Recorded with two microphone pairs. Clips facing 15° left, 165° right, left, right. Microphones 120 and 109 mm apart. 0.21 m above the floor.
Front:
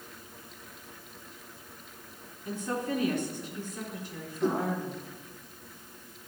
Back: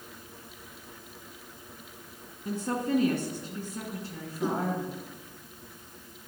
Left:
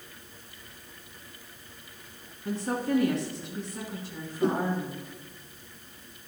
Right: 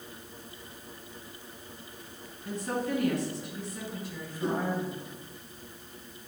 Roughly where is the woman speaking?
Behind left.